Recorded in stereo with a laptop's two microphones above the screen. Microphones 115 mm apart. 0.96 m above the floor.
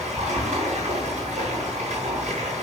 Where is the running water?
80° right, 7 m.